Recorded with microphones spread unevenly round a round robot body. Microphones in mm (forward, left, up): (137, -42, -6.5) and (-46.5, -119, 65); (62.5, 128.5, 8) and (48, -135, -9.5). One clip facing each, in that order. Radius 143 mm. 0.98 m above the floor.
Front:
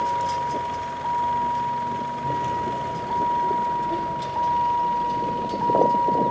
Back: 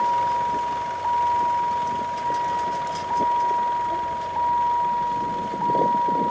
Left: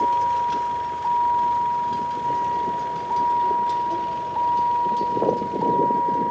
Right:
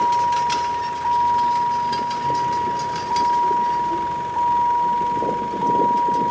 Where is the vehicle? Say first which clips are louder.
Back 2 dB, right 2 dB; 30° right; by 6.3 s 20° right.